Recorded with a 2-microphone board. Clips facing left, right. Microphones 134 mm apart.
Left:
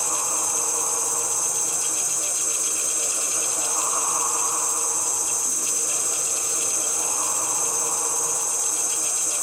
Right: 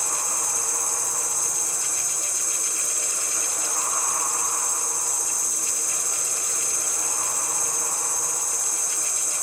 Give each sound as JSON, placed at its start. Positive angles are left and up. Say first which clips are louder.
{"t": 0.0, "sound": "an insect", "louder": "left 3 dB", "side_deg": 70, "distance_m": 1.6}